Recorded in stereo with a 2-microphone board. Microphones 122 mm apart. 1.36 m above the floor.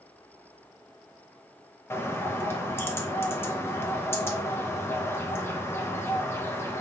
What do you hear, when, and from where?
1.9 s a bird: 20° left (ahead or behind), 0.7 m